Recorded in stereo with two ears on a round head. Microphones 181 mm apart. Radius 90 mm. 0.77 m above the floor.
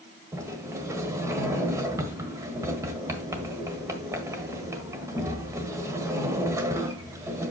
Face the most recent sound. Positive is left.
turn(degrees=-15)  # may be behind; listen again after turning